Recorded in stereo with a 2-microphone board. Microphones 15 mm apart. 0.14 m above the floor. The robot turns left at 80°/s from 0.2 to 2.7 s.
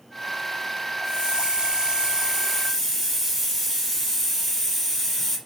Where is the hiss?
45° right, 4 m; by 5.4 s straight behind, 4 m.